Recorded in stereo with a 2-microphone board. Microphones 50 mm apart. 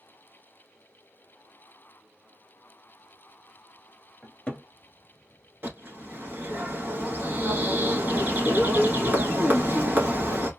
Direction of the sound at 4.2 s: 15° left (ahead or behind).